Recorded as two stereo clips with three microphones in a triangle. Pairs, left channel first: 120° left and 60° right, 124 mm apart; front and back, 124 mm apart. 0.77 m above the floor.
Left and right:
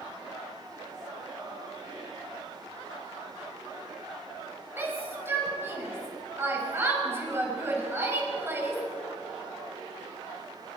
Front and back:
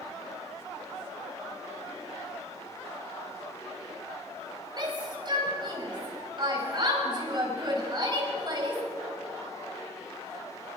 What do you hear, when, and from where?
4.8 s a shout: 130° right, 5.5 m